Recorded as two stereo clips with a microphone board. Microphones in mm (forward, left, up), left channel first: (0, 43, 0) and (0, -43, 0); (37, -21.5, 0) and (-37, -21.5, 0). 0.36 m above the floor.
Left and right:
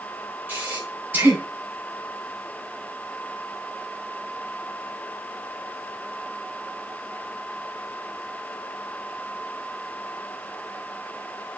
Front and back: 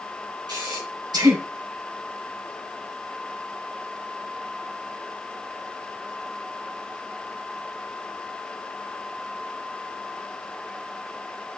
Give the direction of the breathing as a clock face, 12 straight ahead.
5 o'clock.